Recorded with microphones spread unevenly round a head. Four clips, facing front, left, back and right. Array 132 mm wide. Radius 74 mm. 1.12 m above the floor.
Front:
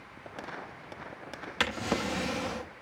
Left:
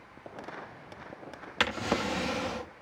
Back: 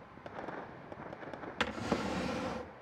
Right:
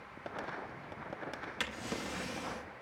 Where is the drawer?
80° left, 0.6 m.